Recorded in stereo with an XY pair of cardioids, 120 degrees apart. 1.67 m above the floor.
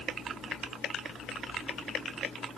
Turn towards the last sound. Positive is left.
No sound to turn to.